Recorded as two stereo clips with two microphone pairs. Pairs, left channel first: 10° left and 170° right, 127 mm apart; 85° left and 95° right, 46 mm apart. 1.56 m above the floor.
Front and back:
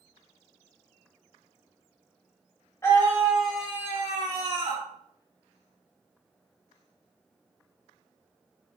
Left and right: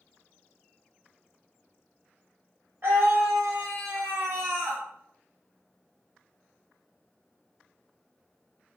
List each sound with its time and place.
2.8 s a scream: 60° right, 1.0 m; by 4.8 s 140° right, 0.9 m